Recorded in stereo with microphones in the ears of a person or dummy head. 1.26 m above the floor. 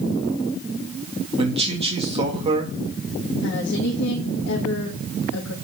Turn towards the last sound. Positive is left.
turn(degrees=80)